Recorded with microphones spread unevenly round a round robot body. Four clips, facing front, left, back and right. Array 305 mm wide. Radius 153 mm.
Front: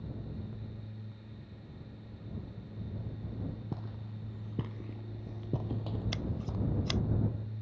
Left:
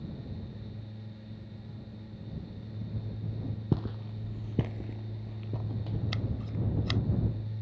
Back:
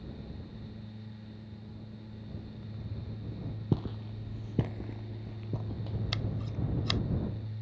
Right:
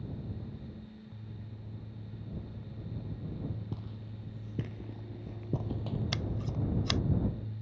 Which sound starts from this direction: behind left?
Footsteps, at 3.7 s.